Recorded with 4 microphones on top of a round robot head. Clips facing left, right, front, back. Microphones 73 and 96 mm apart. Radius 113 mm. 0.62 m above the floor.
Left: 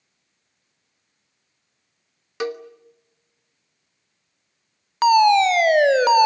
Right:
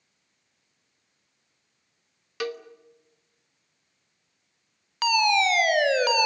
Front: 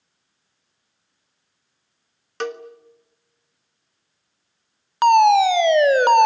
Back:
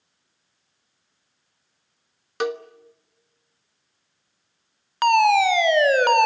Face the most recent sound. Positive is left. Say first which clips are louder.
# left 8 dB, front 4 dB
turn(degrees=60)